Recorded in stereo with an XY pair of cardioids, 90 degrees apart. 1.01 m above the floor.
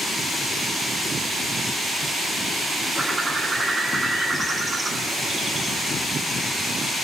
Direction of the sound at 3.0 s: 40° right.